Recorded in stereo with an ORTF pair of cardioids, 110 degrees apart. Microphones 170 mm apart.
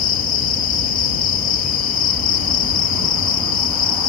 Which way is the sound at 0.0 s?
55° left.